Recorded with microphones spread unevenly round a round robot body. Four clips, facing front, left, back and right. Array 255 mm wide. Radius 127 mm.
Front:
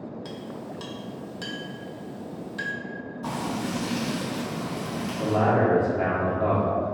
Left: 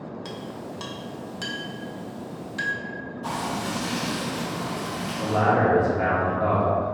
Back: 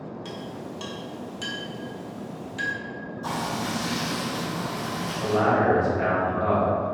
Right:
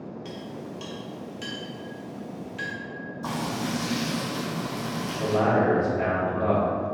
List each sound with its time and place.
0.2 s a clink: 90° left, 0.6 m
3.2 s frying: 50° right, 1.0 m
5.2 s a man speaking: 15° right, 1.4 m